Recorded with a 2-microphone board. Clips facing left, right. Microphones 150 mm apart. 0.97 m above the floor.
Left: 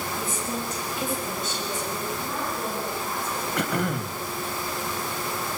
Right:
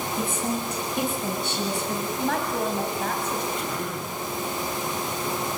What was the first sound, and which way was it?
A woman speaking, 60° right (ahead or behind).